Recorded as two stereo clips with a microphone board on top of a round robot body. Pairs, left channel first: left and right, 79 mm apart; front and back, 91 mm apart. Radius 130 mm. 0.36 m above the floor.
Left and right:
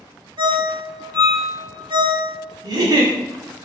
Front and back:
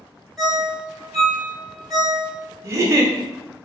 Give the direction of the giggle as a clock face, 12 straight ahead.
4 o'clock.